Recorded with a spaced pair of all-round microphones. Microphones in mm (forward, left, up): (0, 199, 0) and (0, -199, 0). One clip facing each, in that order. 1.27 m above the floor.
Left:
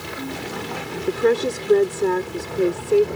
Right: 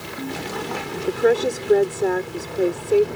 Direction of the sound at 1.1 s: 10° left (ahead or behind).